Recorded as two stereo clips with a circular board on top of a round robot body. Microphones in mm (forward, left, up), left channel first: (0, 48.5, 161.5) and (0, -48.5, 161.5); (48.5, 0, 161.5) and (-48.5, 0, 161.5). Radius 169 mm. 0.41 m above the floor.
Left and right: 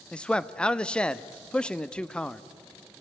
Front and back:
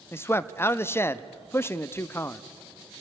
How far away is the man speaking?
About 0.8 m.